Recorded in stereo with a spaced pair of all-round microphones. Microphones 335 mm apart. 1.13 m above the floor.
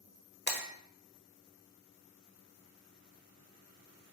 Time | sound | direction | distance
0.5 | breaking glass | 30° left (ahead or behind) | 1.0 m